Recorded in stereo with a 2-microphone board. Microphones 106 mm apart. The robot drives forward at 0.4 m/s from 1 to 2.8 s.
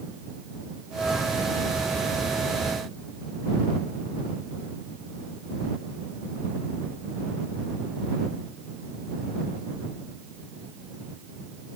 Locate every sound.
Only background noise.